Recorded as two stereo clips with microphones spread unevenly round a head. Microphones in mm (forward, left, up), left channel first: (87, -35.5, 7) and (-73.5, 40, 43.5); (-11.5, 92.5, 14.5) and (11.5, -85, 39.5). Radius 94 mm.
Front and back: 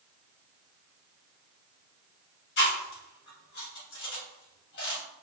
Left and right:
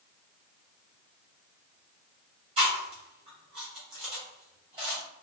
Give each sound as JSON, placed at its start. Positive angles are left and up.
{"t": 2.6, "sound": "chewing", "azimuth_deg": -20, "distance_m": 2.0}